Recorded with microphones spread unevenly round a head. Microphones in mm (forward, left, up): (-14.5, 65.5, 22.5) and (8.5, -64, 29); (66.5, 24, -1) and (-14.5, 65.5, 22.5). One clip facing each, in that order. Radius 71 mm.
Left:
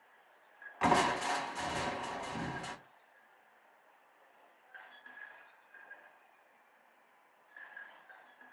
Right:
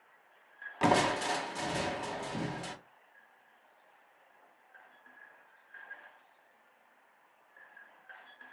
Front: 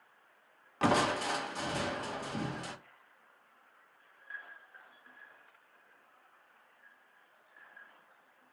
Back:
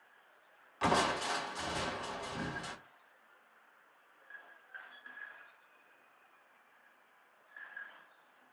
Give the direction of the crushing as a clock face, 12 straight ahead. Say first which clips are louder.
Right 2 dB, front 2 dB; 1 o'clock.